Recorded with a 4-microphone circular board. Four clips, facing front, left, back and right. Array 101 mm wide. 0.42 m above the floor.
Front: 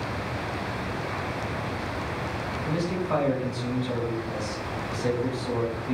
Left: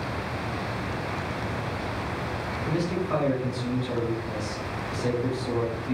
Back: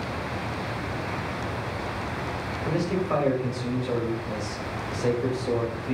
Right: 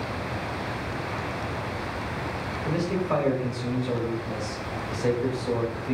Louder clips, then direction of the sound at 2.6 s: Right 1 dB, back 2 dB; 135° right.